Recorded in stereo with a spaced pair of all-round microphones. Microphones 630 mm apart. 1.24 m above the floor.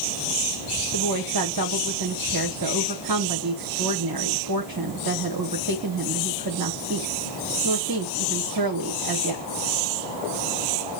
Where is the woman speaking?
35° right (ahead or behind), 1.2 m.